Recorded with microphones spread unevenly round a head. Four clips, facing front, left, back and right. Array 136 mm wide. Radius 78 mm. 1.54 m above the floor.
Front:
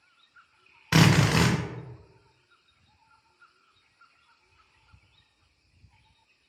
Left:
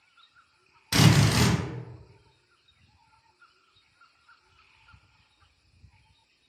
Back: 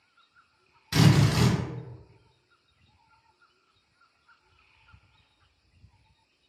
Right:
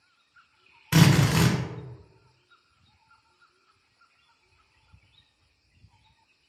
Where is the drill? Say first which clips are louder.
Right 1 dB, front 1 dB; 10° right, 0.7 m.